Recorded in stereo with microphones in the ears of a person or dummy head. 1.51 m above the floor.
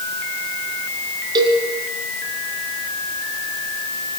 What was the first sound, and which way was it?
A cowbell, 30° right (ahead or behind).